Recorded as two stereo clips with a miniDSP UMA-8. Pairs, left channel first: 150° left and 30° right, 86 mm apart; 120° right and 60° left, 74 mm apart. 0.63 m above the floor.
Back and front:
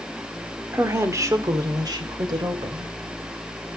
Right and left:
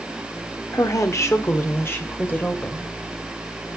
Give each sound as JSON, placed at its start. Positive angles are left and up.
{"t": 0.7, "sound": "a woman speaking", "azimuth_deg": -90, "distance_m": 1.8}